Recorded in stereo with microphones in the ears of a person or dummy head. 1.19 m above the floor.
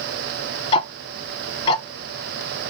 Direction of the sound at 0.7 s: 25° left (ahead or behind).